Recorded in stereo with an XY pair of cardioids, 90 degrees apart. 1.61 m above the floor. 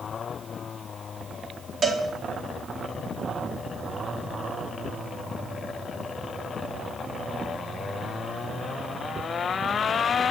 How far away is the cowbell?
About 4 m.